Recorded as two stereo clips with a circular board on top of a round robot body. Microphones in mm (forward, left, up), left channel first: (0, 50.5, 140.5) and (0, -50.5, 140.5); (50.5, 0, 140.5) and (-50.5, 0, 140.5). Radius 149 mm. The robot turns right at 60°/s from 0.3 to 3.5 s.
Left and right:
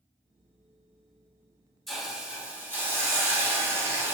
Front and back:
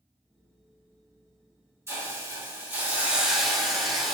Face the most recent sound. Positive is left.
turn(degrees=-85)